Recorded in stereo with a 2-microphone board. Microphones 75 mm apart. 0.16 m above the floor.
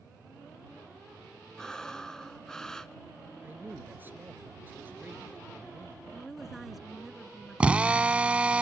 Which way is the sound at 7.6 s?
20° right (ahead or behind).